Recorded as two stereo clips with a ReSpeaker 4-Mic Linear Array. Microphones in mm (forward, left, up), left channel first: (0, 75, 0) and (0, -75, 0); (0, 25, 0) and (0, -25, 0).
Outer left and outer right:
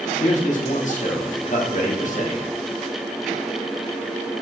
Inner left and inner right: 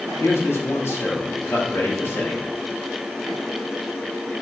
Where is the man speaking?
55° left (ahead or behind), 1.0 m.